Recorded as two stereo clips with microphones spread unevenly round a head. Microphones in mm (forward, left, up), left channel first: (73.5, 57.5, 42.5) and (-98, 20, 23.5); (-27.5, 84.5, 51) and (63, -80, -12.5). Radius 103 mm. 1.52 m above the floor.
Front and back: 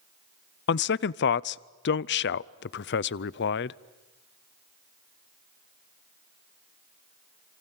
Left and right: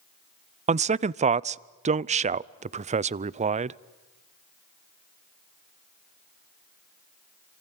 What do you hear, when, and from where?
0.7 s a man speaking: 20° right, 0.5 m